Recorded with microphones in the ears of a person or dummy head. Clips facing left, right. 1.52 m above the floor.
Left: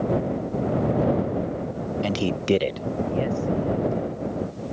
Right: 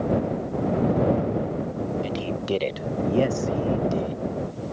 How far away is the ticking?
I don't hear ticking.